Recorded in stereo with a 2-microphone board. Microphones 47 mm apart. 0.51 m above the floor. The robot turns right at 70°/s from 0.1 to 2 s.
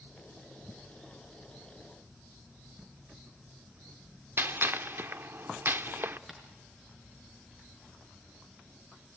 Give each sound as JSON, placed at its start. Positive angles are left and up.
{"t": 4.4, "sound": "a gunshot", "side_deg": -45, "distance_m": 0.7}
{"t": 6.3, "sound": "tapping", "side_deg": -5, "distance_m": 4.0}